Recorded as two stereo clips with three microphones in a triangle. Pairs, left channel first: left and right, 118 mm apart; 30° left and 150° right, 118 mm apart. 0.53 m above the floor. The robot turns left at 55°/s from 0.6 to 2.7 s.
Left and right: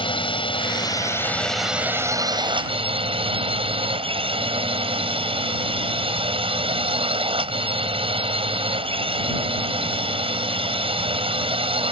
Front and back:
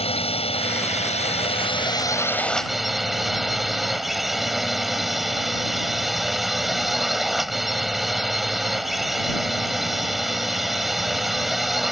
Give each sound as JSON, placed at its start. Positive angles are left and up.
{"t": 0.0, "sound": "a drone", "azimuth_deg": 55}